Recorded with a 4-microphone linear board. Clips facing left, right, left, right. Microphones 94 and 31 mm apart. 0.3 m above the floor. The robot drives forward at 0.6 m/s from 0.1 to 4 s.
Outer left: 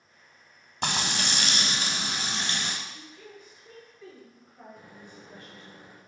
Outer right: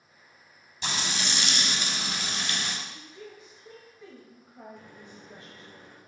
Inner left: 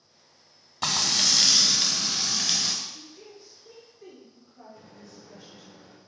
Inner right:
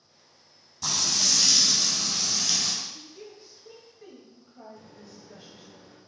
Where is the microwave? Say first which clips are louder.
Even, even; 15° left (ahead or behind), 0.9 m.